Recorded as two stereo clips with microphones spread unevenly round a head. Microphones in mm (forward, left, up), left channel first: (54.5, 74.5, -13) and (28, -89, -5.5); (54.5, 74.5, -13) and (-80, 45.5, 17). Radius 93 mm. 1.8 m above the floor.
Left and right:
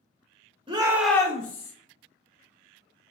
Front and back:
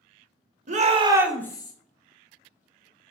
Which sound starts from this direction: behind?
A shout, at 0.7 s.